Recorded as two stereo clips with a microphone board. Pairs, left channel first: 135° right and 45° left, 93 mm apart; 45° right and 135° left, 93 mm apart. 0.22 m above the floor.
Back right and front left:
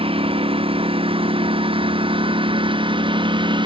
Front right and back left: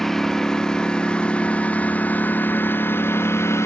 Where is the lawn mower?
40° left; by 3.7 s 15° left.